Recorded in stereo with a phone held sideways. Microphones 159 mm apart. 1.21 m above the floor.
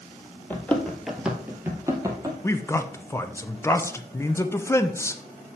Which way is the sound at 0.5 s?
10° left (ahead or behind).